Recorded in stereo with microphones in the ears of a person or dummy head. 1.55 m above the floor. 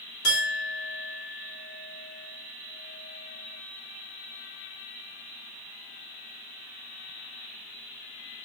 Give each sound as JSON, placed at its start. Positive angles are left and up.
{"t": 0.2, "sound": "a clink", "side_deg": 70, "distance_m": 1.2}